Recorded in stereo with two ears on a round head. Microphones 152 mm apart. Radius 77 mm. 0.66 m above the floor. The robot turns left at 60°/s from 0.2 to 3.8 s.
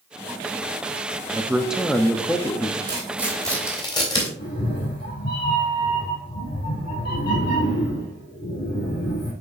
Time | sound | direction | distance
1.3 | a man speaking | 15° right (ahead or behind) | 0.6 m
2.9 | tearing paper | 30° right (ahead or behind) | 2.5 m
4.4 | a cat meowing | 70° left (ahead or behind) | 2.5 m